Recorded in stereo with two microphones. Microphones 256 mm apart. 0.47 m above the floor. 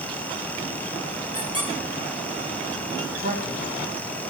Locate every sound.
1.3 s a squeak: 20° right (ahead or behind), 3 m
3.2 s a man speaking: 30° right (ahead or behind), 1.8 m